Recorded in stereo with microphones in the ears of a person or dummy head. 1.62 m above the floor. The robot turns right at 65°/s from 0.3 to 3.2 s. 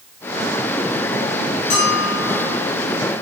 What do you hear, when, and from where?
1.7 s a bell: 125° left, 7 m; by 2.5 s straight behind, 7 m